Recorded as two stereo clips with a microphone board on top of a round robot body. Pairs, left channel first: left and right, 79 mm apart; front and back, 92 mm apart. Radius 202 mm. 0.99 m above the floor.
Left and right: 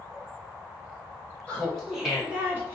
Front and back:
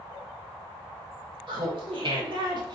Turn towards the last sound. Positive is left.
turn(degrees=-150)